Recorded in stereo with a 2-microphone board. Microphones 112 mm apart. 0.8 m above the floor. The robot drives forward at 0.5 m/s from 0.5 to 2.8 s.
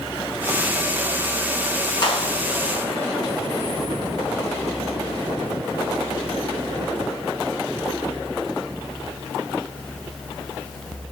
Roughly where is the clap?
Left.